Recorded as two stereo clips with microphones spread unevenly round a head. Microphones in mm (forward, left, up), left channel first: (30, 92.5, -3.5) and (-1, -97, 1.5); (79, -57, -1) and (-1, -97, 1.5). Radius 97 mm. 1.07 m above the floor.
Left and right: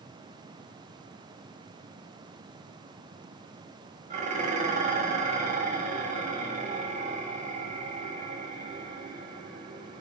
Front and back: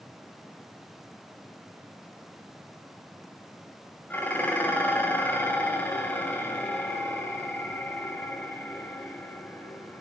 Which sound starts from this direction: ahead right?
Dishes clattering, at 4.1 s.